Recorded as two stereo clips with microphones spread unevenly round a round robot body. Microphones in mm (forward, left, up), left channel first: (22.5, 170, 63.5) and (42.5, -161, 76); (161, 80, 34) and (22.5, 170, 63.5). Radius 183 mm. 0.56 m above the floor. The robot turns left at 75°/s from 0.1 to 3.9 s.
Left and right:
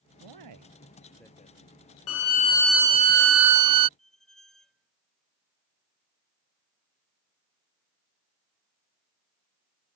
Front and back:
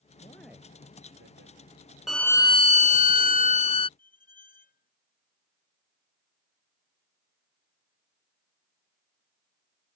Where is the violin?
55° left; by 3.9 s 85° right.